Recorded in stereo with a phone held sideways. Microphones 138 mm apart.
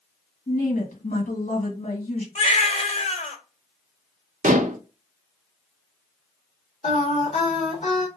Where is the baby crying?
55° left (ahead or behind), 1.5 m.